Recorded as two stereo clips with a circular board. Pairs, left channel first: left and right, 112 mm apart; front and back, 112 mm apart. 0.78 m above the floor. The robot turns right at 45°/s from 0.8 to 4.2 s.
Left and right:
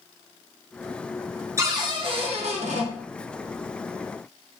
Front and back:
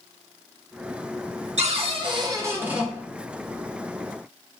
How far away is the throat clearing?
I don't hear throat clearing.